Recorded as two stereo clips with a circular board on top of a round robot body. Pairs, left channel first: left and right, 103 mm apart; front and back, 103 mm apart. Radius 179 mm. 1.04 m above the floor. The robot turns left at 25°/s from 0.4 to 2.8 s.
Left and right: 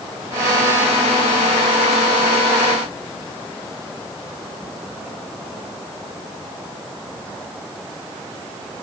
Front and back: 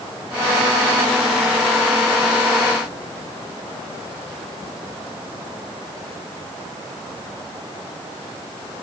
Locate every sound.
Only background noise.